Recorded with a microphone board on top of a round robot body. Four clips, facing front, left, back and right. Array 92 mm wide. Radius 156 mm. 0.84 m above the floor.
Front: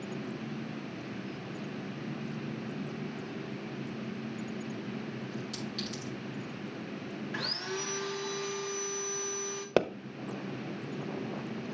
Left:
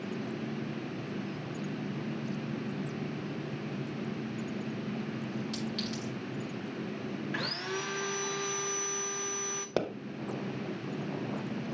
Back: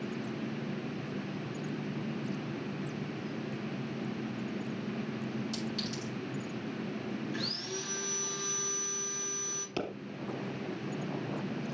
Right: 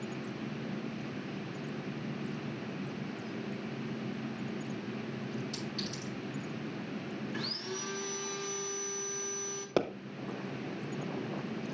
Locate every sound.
5.5 s a clink: 110° left, 5 m
7.3 s sawing: 60° left, 0.6 m
9.8 s a pop: straight ahead, 0.9 m